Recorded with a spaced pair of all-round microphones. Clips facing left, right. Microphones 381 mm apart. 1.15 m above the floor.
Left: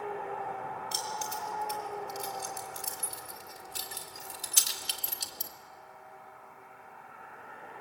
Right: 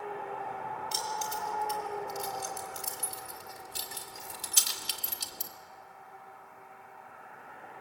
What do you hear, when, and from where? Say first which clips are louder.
0.9 s keys jangling: right 1 dB; 5° right (ahead or behind), 4 m; by 5.5 s 20° right (ahead or behind), 1.5 m